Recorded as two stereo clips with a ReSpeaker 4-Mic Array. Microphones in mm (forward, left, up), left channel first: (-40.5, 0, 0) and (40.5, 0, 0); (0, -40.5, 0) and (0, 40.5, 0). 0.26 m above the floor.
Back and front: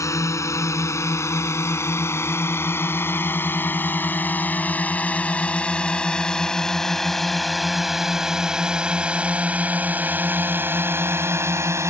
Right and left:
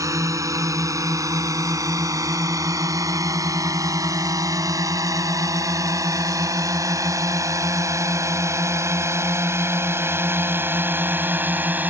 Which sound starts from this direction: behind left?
A drone, at 0.0 s.